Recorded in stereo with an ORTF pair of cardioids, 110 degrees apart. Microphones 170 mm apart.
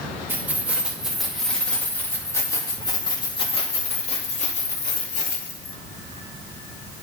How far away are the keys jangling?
About 2 m.